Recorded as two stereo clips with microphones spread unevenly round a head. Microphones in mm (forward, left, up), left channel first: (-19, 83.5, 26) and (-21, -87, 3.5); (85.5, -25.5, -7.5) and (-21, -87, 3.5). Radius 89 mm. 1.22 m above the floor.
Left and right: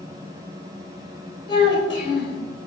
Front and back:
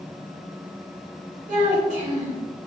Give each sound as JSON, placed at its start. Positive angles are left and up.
{"t": 1.5, "sound": "a child speaking", "azimuth_deg": 155, "distance_m": 1.7}